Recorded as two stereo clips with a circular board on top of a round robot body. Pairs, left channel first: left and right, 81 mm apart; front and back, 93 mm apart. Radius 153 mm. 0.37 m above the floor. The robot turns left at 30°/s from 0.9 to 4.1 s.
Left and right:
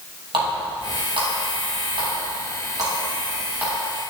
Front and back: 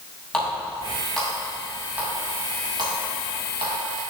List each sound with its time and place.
0.3 s a running tap: 75° right, 2.5 m; by 3.8 s 165° right, 2.5 m